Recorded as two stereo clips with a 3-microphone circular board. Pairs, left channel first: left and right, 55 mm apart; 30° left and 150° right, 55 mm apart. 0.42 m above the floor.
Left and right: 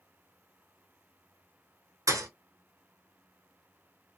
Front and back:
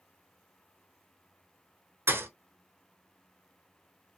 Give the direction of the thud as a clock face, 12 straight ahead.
3 o'clock.